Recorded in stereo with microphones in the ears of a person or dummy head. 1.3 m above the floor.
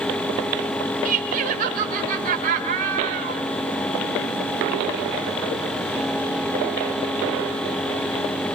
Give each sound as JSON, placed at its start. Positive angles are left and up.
{"t": 1.1, "sound": "laughter", "side_deg": -50, "distance_m": 4.0}